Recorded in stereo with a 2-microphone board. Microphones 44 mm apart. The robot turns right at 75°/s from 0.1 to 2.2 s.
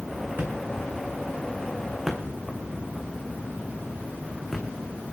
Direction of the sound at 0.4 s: 45° right (ahead or behind).